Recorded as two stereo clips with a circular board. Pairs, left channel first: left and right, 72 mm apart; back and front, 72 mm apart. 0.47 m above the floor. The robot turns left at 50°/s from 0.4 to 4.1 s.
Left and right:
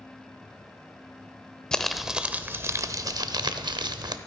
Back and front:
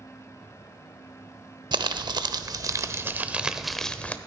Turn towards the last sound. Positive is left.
turn(degrees=-110)